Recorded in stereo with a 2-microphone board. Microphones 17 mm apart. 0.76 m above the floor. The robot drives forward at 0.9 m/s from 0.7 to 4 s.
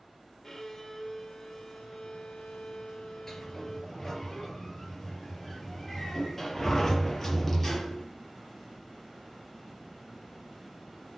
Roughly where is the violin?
Left.